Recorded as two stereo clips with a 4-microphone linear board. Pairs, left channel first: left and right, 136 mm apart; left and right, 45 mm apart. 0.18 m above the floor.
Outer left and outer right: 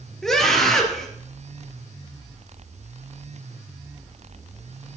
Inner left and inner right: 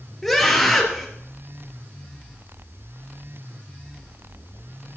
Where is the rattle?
I don't hear a rattle.